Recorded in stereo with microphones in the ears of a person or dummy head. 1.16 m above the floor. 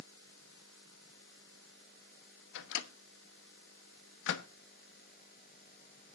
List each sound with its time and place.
2.5 s a microwave: 65° left (ahead or behind), 1.0 m